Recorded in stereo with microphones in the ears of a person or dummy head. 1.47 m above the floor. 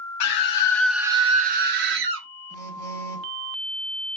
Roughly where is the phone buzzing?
Right.